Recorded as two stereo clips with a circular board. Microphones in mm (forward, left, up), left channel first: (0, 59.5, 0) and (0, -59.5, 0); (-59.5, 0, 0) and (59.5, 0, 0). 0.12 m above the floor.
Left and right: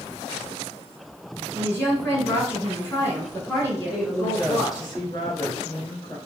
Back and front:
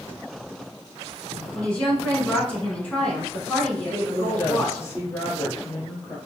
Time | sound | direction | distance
1.5 | a woman speaking | 115° left | 1.1 m
3.9 | a woman speaking | 125° left | 1.4 m